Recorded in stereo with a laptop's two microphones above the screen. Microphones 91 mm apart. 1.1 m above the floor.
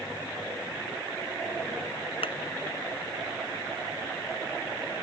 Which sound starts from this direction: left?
A thud, at 2.2 s.